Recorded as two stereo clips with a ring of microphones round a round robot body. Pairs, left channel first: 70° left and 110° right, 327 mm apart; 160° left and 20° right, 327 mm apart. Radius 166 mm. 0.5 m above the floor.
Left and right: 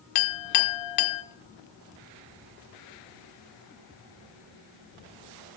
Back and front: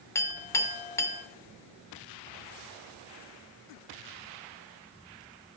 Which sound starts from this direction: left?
A clink, at 0.1 s.